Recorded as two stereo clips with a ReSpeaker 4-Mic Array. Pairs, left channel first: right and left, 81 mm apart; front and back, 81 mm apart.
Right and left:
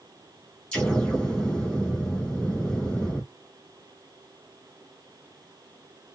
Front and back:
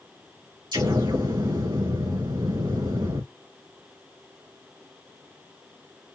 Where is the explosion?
170° right, 3 m.